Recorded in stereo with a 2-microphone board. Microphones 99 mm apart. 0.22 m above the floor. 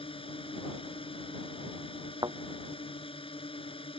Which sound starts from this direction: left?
A drone, at 0.0 s.